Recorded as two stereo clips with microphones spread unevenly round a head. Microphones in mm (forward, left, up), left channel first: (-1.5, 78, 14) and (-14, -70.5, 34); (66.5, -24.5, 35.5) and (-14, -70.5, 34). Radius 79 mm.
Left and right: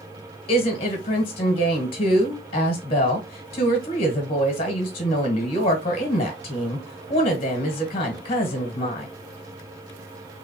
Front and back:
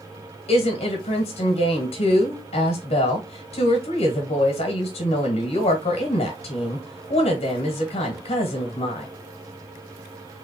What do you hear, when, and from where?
0.5 s a woman speaking: 35° left, 1.6 m